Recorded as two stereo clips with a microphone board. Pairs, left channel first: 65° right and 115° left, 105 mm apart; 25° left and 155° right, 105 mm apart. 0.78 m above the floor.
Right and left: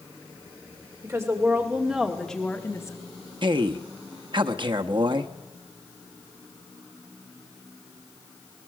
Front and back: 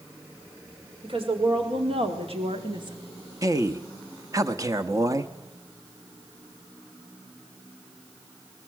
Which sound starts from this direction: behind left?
A man speaking, at 3.4 s.